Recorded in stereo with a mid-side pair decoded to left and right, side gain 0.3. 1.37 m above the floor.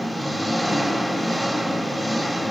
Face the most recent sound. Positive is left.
turn(degrees=5)